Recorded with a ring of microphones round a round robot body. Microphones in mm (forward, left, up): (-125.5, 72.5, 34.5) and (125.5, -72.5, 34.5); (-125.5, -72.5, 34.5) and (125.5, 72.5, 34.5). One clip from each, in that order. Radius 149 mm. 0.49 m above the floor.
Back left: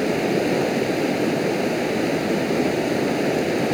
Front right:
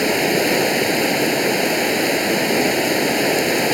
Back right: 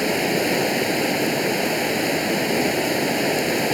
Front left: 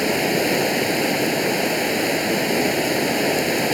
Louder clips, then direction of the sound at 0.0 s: Front right 4 dB, front left 1 dB; 55° right.